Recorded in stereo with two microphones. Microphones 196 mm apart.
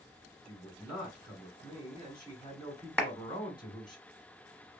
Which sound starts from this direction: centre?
A clap, at 3.0 s.